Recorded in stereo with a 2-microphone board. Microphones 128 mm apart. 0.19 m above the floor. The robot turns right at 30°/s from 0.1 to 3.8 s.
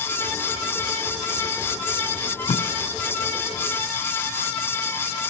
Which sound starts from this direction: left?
Tape being pulled, at 2.5 s.